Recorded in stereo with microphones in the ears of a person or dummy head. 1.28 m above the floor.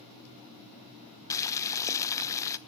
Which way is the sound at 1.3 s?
20° left (ahead or behind).